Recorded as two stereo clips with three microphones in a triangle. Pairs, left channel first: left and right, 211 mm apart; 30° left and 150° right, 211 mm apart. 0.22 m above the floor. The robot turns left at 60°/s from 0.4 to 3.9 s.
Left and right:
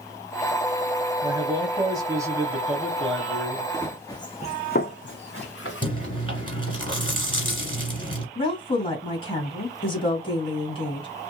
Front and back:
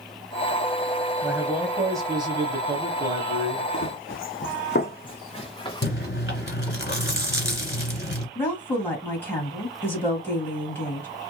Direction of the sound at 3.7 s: 15° left.